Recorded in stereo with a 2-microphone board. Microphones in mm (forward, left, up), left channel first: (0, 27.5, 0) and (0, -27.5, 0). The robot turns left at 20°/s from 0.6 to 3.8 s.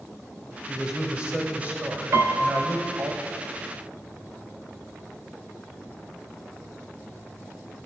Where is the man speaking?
20° right, 1.3 m; by 3.1 s 65° right, 1.3 m.